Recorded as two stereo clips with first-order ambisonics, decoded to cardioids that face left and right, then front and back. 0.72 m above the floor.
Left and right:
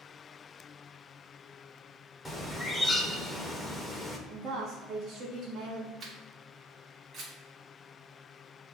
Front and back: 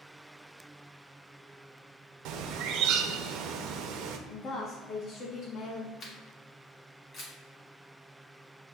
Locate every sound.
2.2 s a bird: 170° left, 0.5 m
4.3 s a woman speaking: 25° right, 0.9 m
6.0 s a camera shutter: 40° right, 1.3 m